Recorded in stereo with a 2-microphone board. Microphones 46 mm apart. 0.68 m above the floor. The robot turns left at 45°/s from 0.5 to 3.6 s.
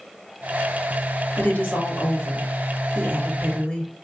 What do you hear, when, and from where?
1.4 s a woman speaking: 125° left, 1.9 m; by 3.9 s 25° left, 1.9 m